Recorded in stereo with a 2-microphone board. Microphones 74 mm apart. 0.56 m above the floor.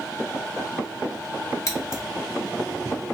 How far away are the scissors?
About 1.1 m.